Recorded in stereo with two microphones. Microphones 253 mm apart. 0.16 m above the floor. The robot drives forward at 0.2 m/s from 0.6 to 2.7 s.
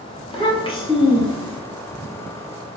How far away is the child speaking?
About 0.8 m.